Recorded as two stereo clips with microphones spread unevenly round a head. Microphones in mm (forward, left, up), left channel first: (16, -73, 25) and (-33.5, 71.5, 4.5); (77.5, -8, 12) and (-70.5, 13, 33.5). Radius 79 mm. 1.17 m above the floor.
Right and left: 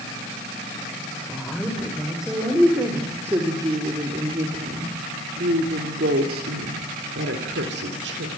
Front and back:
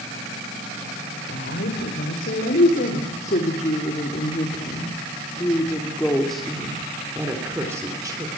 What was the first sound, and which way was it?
A woman speaking, 15° left.